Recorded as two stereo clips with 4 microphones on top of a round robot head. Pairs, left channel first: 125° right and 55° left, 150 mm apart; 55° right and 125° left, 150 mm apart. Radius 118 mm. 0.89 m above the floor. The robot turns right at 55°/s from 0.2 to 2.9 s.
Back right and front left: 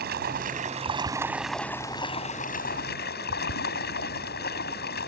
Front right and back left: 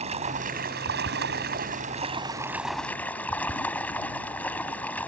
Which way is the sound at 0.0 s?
75° left.